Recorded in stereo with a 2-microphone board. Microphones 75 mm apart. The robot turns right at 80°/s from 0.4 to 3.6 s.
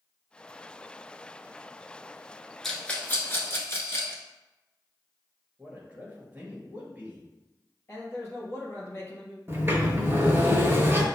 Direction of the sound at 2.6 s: 5° left (ahead or behind).